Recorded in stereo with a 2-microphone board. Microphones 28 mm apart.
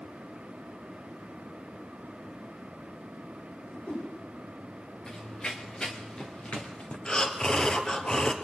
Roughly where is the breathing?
Left.